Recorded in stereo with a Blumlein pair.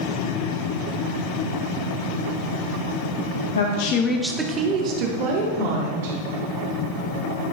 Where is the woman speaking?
70° left, 0.9 m; by 6.2 s 55° right, 3 m.